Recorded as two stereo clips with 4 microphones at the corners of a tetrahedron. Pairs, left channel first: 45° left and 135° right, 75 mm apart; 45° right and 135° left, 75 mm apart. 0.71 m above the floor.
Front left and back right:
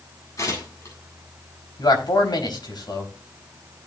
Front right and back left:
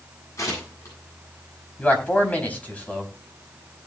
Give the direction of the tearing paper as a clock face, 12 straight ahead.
12 o'clock.